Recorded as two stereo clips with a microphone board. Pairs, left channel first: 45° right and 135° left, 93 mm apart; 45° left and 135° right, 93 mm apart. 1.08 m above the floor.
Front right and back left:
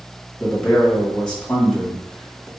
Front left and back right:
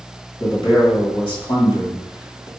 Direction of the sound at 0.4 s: 35° left.